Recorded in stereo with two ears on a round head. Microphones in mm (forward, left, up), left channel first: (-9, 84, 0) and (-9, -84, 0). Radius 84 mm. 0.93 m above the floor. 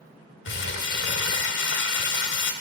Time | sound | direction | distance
0.5 | crumpling | 65° left (ahead or behind) | 1.4 m